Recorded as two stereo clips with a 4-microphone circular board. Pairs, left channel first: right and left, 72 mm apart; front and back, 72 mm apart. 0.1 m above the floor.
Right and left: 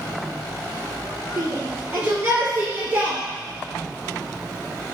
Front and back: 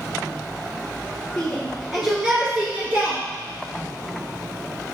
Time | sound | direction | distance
1.4 | a shout | 75° left | 1.7 m